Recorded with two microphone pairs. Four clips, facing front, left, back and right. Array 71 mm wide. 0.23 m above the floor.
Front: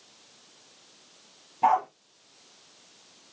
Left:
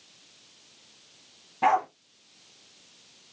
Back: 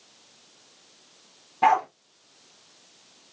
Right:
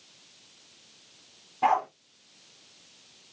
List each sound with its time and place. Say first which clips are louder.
1.6 s a dog barking: left 1 dB, back 2 dB; 165° left, 1.4 m